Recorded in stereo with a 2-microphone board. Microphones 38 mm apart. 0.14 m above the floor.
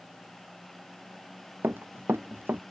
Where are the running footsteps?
70° right (ahead or behind).